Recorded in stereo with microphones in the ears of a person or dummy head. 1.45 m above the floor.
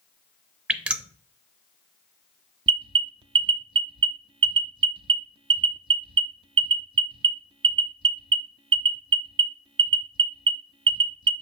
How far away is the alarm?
About 0.6 m.